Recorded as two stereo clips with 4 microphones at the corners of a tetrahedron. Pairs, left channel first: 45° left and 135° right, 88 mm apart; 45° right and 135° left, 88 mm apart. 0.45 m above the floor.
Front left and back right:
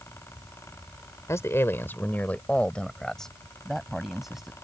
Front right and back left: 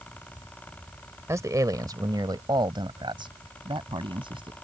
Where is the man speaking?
90° left; by 4.5 s 140° left.